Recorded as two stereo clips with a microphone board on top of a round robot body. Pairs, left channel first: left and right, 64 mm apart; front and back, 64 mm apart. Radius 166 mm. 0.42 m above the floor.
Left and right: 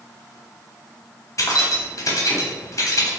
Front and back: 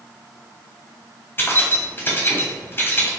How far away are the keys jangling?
About 1.0 m.